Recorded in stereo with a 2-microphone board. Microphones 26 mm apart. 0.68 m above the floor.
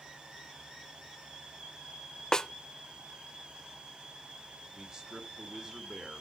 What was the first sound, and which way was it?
A snare drum, 30° left (ahead or behind).